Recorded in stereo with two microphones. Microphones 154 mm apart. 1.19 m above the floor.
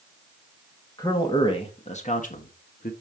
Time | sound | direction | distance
1.0 | a man speaking | 25° left (ahead or behind) | 1.6 m